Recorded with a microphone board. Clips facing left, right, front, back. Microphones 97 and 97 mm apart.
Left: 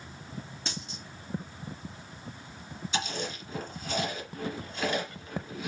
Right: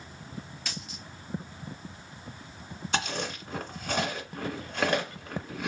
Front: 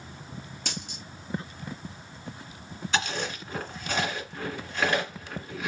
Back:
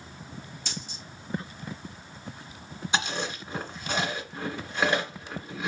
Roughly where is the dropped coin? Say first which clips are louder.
Left 1 dB, front 4 dB; ahead left.